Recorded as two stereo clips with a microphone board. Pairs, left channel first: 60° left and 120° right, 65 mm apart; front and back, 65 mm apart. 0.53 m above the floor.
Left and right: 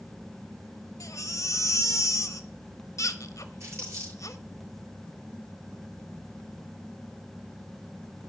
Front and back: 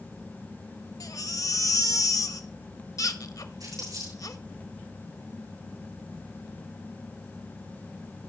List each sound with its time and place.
1.0 s a baby crying: 25° left, 0.9 m
3.6 s crumpling: 165° right, 9 m